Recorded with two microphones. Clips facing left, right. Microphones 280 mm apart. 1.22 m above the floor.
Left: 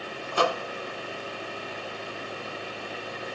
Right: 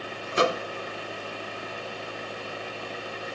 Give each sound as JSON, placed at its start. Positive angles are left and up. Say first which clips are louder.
{"t": 0.3, "sound": "a microwave", "louder": "right 2 dB", "side_deg": -20, "distance_m": 0.5}